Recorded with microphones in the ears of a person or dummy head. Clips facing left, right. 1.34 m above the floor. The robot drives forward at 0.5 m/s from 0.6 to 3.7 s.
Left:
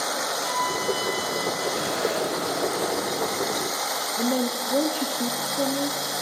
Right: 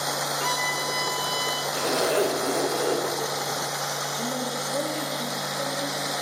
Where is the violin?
70° right (ahead or behind), 3 m; by 1.6 s 65° right (ahead or behind), 3 m.